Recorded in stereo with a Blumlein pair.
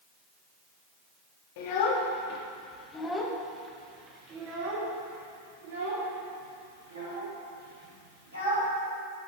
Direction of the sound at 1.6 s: 50° left.